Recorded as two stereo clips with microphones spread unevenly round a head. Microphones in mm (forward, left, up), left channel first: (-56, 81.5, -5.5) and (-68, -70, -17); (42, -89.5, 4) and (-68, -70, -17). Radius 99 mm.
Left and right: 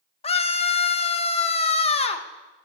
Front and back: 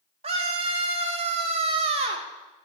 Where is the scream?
135° left, 1.1 m.